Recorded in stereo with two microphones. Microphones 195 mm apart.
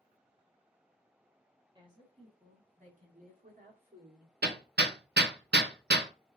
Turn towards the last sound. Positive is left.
turn(degrees=-60)  # may be behind; listen again after turning